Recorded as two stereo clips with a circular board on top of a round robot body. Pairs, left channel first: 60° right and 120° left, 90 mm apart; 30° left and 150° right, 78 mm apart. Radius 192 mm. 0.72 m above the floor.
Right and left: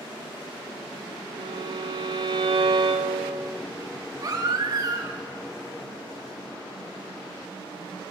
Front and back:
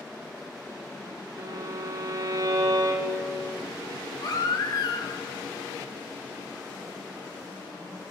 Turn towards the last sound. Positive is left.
turn(degrees=70)